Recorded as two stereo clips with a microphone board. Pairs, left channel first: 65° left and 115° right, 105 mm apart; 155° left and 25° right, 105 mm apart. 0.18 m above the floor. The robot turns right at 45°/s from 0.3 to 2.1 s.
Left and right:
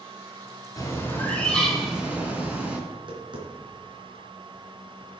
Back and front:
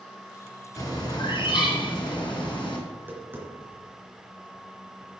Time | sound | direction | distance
0.8 | a bird | 110° left | 2.5 m
2.9 | tapping | 90° right | 3 m